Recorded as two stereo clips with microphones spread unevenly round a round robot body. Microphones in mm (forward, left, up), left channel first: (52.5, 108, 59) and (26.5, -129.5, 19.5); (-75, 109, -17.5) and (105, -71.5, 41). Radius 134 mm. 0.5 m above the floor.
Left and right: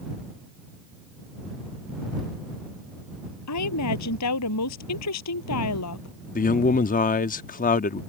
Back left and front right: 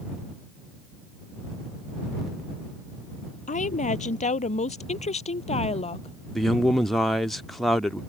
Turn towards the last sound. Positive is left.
turn(degrees=80)